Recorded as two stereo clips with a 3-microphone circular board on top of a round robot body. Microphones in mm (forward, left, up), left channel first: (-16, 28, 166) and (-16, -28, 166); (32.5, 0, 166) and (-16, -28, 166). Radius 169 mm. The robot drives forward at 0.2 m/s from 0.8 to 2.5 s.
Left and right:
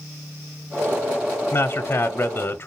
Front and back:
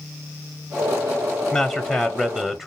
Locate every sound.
1.5 s a man speaking: 110° left, 0.9 m; by 2.7 s 125° left, 0.9 m